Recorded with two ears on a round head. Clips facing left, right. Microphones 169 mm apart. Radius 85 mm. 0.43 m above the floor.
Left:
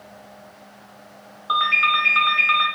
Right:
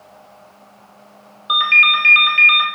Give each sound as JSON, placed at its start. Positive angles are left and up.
{"t": 1.5, "sound": "a ringtone", "side_deg": -30, "distance_m": 0.5}